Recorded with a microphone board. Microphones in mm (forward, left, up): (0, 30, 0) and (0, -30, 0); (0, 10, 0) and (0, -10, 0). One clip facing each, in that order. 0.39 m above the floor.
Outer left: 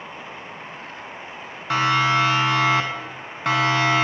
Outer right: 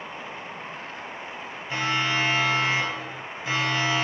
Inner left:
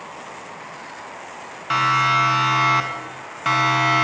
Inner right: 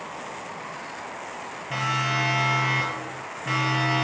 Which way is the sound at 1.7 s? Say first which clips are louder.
Outer left 7 dB, inner left 8 dB; 75° left (ahead or behind).